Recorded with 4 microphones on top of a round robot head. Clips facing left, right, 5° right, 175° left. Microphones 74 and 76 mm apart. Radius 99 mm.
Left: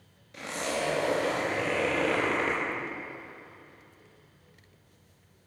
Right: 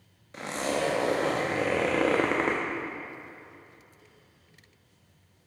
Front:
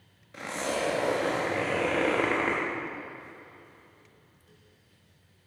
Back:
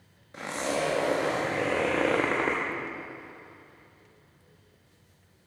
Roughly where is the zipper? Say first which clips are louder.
Right 3 dB, back 1 dB; behind right.